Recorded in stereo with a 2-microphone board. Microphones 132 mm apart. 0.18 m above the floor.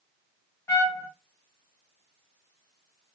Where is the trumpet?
20° left (ahead or behind), 1.1 m.